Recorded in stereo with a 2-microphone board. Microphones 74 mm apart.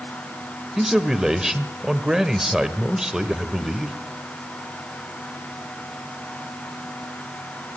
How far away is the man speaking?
About 1.2 m.